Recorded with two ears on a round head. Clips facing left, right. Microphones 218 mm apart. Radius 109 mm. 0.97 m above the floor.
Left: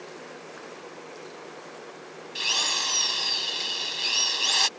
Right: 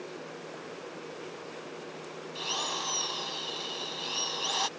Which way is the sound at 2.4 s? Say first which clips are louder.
Even; 40° left (ahead or behind).